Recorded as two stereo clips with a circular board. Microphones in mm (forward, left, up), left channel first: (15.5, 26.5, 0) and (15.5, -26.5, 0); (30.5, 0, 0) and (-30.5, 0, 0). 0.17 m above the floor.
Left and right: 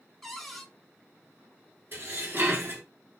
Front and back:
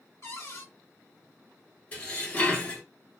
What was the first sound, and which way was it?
A cupboard door, 5° left.